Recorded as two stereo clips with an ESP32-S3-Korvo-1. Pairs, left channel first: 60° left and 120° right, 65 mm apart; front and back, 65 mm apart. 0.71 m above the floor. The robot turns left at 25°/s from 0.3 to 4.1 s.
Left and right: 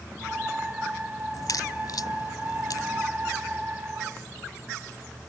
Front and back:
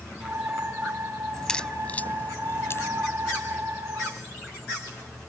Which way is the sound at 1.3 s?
80° left.